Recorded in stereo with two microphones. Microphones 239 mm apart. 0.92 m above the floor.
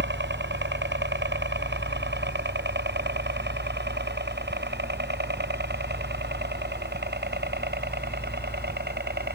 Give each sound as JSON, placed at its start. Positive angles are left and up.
{"t": 0.0, "sound": "a helicopter", "side_deg": -45}